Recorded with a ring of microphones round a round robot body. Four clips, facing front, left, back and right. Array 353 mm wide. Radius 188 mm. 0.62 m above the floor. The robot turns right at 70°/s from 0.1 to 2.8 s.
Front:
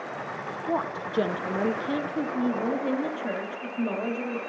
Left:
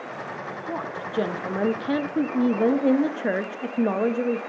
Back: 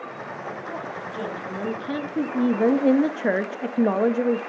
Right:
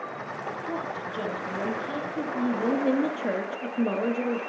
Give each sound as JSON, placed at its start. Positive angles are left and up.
{"t": 0.7, "sound": "a woman speaking", "azimuth_deg": 5, "distance_m": 0.8}